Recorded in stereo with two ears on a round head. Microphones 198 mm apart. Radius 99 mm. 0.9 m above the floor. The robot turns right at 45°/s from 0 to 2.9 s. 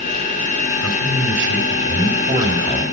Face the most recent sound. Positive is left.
turn(degrees=10)